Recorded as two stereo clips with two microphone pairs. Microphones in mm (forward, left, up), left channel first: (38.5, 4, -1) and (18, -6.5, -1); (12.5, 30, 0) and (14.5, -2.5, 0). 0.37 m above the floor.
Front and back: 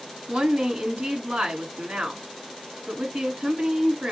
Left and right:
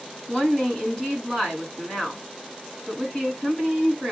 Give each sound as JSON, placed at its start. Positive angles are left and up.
{"t": 0.3, "sound": "a woman speaking", "azimuth_deg": 170, "distance_m": 3.5}